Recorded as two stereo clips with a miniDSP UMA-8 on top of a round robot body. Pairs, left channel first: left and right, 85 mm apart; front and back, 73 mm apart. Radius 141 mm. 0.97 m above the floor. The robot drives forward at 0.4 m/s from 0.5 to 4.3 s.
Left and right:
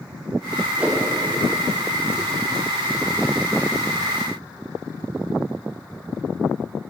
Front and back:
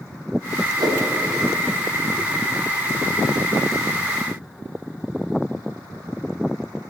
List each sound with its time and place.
0.8 s a whoosh: 165° right, 1.0 m